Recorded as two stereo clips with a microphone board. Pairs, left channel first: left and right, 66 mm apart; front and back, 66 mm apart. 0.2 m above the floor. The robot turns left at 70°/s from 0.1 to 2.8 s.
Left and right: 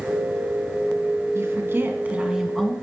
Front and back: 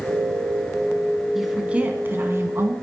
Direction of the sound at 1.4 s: 90° right.